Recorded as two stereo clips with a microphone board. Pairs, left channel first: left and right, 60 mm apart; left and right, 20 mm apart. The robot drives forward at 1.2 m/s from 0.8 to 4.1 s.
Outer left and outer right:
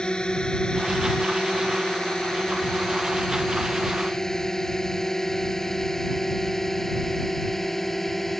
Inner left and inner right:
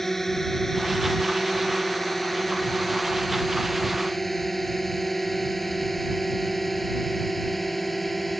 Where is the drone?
15° left (ahead or behind); by 8.4 s 5° left (ahead or behind).